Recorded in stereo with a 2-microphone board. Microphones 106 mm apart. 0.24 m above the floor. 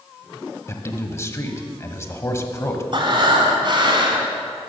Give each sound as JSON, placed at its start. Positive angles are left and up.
{"t": 0.7, "sound": "a man speaking", "side_deg": 25, "distance_m": 1.1}
{"t": 2.9, "sound": "breathing", "side_deg": -50, "distance_m": 1.8}